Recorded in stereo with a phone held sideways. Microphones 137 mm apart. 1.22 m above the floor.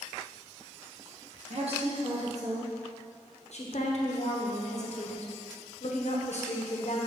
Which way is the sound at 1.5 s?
55° right (ahead or behind).